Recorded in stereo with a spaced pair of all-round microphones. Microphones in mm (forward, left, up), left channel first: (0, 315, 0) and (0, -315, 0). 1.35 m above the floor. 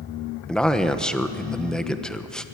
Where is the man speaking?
Centre (ahead or behind), 1.2 m.